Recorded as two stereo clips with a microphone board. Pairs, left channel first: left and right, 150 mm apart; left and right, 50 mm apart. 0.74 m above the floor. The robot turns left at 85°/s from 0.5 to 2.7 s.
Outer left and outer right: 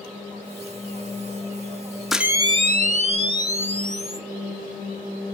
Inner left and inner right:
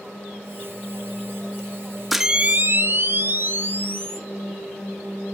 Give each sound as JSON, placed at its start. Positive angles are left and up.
{"t": 2.1, "sound": "a camera shutter", "azimuth_deg": 0, "distance_m": 0.9}